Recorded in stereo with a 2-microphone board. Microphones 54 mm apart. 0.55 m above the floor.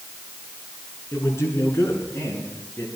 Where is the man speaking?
55° left (ahead or behind), 6.5 m.